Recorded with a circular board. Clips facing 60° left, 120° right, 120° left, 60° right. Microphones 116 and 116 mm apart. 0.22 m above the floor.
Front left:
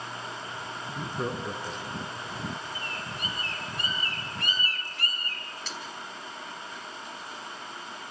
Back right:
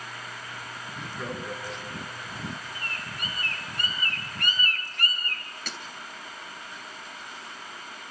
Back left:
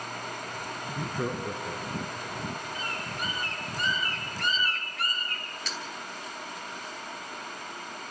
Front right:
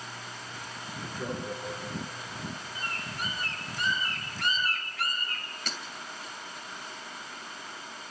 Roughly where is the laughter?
Left.